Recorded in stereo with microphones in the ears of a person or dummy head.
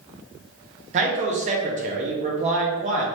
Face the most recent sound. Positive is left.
turn(degrees=-40)  # may be behind; listen again after turning